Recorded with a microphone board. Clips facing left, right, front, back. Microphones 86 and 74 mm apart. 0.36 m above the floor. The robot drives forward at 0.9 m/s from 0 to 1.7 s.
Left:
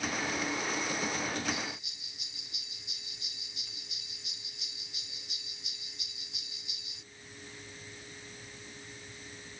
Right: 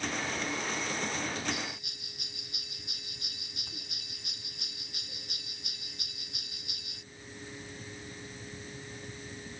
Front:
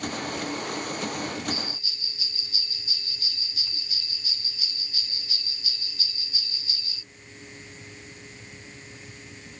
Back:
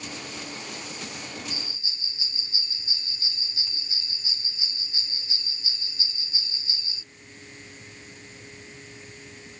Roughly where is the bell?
Behind right.